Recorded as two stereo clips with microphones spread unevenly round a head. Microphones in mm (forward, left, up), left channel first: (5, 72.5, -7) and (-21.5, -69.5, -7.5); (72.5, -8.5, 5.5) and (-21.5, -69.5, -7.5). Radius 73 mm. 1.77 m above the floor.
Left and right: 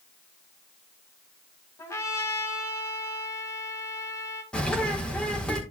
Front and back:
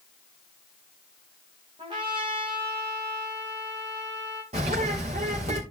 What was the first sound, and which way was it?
A trumpet, 150° left.